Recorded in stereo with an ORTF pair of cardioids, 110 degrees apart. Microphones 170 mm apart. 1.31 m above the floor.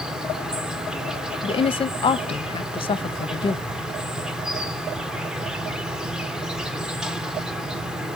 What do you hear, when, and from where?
0.0 s an insect: 5° right, 1.0 m
1.4 s a woman speaking: 30° left, 0.9 m